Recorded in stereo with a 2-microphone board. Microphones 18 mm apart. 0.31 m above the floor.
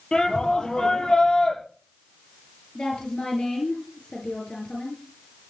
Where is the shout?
40° left (ahead or behind), 7 m.